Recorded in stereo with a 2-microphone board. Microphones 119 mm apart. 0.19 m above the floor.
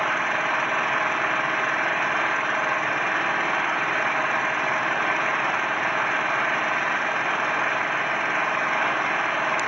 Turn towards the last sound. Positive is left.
turn(degrees=0)  # may be behind; listen again after turning